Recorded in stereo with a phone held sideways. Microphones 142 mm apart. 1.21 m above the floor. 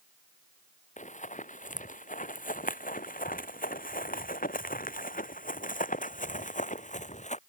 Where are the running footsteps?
60° left (ahead or behind); by 7.4 s 55° left (ahead or behind).